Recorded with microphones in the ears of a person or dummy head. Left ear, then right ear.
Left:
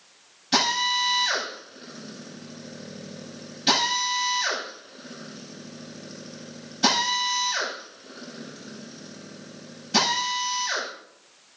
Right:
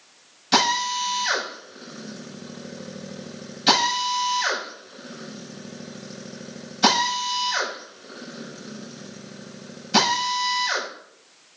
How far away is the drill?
About 7.5 m.